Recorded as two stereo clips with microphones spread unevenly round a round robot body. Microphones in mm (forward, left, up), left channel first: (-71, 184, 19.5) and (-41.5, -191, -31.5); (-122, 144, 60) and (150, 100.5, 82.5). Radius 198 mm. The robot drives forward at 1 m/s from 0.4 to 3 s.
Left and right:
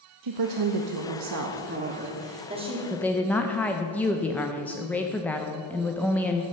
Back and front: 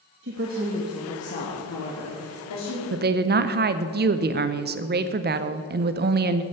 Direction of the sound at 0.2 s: 60° right.